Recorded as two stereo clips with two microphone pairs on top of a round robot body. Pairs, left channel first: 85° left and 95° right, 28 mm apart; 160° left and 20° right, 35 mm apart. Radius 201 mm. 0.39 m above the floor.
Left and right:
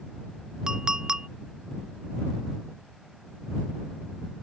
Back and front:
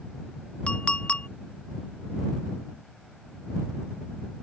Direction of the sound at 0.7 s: 150° right.